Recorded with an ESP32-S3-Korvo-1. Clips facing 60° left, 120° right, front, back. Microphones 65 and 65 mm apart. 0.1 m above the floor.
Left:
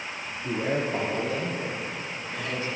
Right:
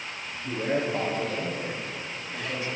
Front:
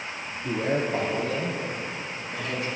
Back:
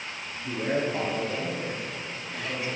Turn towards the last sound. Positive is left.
turn(degrees=10)